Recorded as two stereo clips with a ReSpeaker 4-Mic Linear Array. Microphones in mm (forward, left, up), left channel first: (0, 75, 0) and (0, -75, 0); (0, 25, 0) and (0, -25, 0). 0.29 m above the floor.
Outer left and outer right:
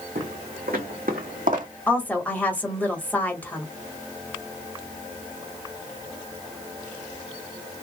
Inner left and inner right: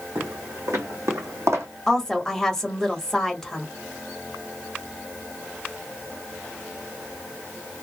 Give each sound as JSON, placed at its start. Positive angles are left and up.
{"t": 0.1, "sound": "footsteps", "side_deg": -75, "distance_m": 1.5}
{"t": 1.9, "sound": "a woman speaking", "side_deg": 10, "distance_m": 1.0}